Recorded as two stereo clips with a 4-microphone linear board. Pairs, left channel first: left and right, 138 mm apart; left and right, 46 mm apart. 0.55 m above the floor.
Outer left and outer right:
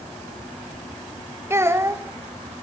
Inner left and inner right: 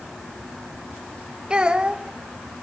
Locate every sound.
1.5 s a child speaking: 20° right (ahead or behind), 1.3 m